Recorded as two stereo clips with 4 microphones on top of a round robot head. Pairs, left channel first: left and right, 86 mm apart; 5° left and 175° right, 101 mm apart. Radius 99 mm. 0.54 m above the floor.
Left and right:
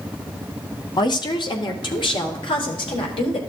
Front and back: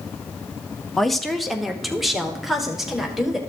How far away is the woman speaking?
About 1.0 m.